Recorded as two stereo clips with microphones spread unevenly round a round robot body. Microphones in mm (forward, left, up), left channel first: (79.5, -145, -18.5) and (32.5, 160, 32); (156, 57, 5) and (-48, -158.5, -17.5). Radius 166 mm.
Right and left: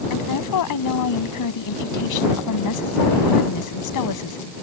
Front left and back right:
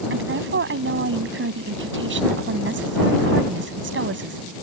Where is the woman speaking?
90° right.